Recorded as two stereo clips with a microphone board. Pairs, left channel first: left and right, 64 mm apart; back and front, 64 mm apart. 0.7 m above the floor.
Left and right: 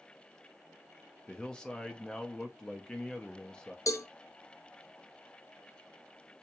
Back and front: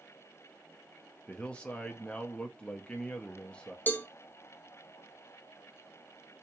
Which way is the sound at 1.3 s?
135° left.